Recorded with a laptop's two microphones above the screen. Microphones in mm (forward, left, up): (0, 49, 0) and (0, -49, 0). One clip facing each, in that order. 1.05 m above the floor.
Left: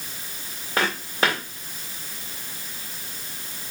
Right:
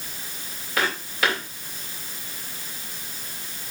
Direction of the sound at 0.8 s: 35° left (ahead or behind).